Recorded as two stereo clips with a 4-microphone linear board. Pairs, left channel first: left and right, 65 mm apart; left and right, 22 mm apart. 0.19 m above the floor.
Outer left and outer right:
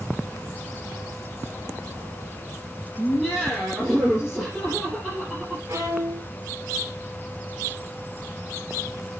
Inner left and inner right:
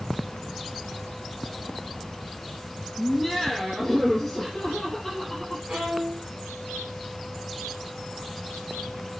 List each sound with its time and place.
3.0 s laughter: 10° right (ahead or behind), 6 m
5.7 s a violin: 65° right (ahead or behind), 2.5 m